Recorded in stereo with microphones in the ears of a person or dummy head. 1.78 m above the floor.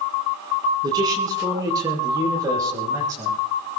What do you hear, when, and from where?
0.8 s a man speaking: 25° right (ahead or behind), 4.5 m; by 3.4 s 20° right (ahead or behind), 7 m